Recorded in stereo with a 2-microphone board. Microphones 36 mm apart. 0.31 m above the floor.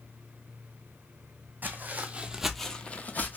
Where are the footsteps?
55° right (ahead or behind), 0.9 m; by 3.4 s 55° left (ahead or behind), 0.8 m.